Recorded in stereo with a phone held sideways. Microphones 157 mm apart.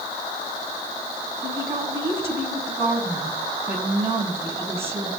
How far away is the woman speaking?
About 6.5 m.